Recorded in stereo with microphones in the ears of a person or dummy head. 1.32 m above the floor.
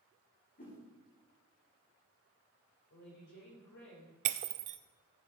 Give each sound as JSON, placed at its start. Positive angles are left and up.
{"t": 0.6, "sound": "a whoosh", "side_deg": 40, "distance_m": 4.5}
{"t": 2.9, "sound": "a woman speaking", "side_deg": 65, "distance_m": 4.5}
{"t": 4.2, "sound": "breaking glass", "side_deg": -40, "distance_m": 0.7}